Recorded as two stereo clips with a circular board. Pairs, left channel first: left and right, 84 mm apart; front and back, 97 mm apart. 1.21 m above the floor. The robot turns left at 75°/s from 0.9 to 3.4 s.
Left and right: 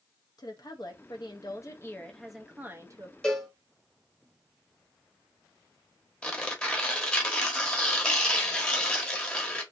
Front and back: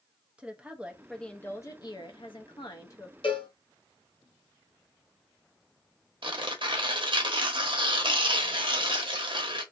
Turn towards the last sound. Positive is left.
turn(degrees=165)